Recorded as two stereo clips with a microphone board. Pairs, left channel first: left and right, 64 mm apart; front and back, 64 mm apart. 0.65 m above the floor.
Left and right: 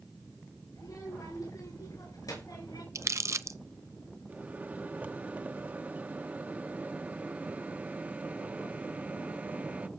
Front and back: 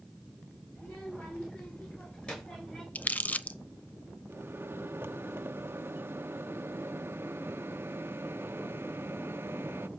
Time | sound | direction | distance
0.8 | a child speaking | 65° left | 8 m
3.0 | crumpling | 60° right | 0.6 m
4.3 | a microwave | 145° right | 0.7 m